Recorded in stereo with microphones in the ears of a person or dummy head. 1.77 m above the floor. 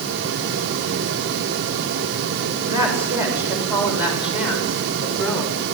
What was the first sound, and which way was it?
A woman speaking, 15° right (ahead or behind).